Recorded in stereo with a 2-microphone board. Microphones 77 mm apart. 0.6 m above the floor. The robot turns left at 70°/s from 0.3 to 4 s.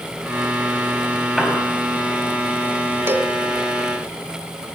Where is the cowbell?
35° right (ahead or behind), 1.4 m; by 3.3 s 15° right (ahead or behind), 1.4 m.